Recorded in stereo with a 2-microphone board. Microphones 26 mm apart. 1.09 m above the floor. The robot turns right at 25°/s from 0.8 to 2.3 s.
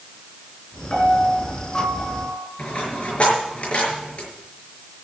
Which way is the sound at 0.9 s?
130° left.